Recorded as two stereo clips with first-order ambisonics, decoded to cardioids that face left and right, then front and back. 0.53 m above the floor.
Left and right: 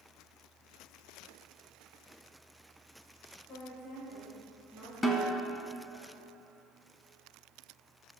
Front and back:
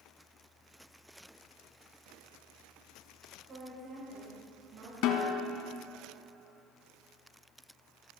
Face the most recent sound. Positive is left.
turn(degrees=15)